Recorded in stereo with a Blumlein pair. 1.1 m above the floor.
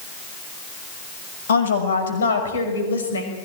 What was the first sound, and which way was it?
A woman speaking, 65° left.